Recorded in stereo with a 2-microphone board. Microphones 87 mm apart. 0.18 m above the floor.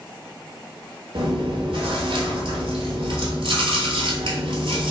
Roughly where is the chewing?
Right.